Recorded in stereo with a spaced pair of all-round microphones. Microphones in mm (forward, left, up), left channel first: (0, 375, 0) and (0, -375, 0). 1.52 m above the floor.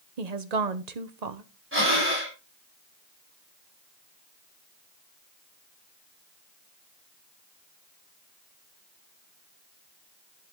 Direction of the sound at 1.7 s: 15° right (ahead or behind).